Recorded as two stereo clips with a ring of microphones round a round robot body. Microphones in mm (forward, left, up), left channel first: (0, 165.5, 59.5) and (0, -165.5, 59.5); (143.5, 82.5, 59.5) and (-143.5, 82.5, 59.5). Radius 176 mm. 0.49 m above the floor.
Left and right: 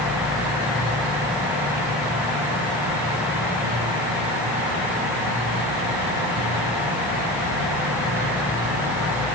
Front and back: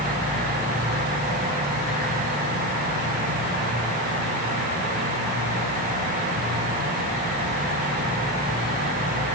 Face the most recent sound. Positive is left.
No sound to turn to.